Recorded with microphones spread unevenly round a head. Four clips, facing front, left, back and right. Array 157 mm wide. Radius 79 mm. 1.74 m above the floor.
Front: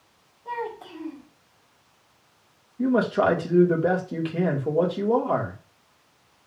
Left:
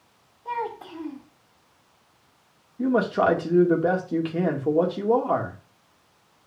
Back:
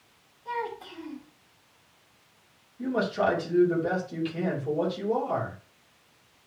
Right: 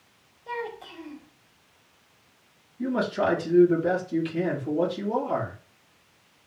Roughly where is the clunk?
I don't hear a clunk.